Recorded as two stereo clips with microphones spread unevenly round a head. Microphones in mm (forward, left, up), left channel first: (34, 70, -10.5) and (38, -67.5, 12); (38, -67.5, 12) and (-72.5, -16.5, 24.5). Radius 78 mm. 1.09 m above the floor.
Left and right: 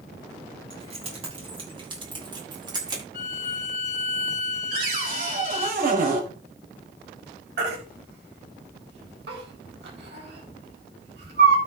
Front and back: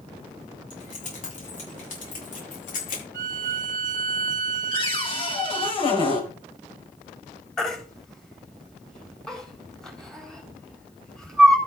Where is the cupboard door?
70° right, 4 m.